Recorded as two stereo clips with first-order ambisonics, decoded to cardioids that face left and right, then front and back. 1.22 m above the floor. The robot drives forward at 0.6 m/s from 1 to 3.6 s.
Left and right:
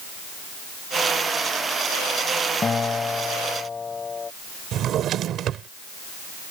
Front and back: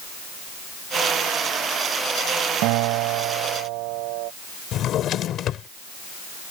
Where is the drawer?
45° right.